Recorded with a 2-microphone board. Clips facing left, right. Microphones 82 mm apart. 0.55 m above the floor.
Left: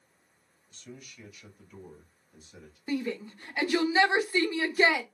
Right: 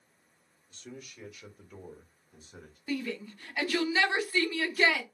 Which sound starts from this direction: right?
A man speaking, at 0.7 s.